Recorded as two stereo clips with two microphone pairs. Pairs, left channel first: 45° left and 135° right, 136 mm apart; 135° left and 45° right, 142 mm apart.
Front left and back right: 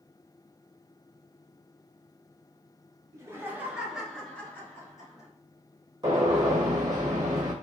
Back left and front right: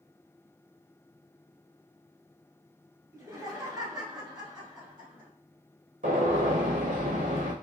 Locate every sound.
3.1 s laughter: 90° right, 1.2 m; by 5.3 s 5° left, 1.5 m
6.0 s a gunshot: 65° right, 1.2 m